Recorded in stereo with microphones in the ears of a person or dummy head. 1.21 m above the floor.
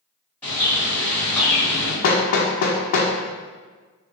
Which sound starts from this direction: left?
Hammering, at 2.0 s.